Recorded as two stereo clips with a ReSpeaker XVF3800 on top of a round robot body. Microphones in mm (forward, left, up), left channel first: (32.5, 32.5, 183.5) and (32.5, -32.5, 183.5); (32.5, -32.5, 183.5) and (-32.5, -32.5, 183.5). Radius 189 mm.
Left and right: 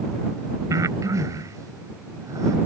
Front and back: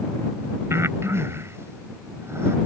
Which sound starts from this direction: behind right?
Breathing, at 0.7 s.